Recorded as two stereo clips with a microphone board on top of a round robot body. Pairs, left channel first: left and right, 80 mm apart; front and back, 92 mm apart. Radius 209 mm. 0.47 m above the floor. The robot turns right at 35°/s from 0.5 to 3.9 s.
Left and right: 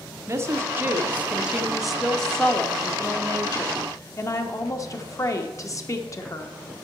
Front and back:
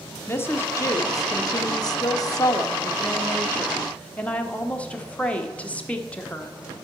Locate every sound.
0.3 s a woman speaking: 50° right, 1.2 m; by 6.5 s 70° left, 1.2 m